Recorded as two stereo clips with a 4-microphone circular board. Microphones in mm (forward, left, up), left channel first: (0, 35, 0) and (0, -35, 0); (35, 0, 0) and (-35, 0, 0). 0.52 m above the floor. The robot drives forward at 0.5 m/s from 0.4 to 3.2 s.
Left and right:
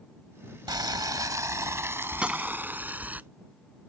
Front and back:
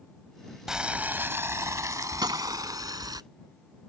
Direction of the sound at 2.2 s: 165° right.